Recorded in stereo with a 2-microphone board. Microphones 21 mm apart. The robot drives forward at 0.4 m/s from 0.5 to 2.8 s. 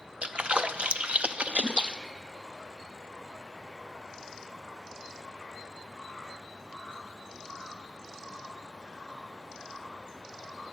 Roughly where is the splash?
Right.